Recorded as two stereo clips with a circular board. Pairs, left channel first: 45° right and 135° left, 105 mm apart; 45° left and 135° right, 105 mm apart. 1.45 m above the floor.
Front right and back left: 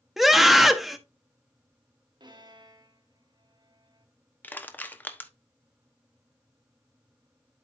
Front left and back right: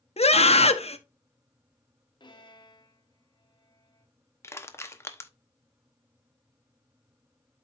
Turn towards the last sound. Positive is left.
turn(degrees=10)